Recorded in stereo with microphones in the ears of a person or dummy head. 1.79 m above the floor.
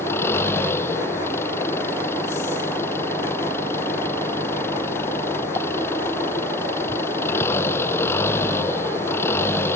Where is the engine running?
15° left (ahead or behind).